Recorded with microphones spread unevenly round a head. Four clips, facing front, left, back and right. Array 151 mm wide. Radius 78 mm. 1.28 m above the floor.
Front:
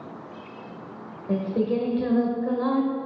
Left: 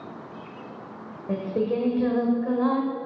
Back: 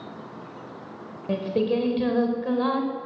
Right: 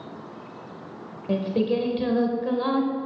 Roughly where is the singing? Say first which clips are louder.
Right 2 dB, even; behind right.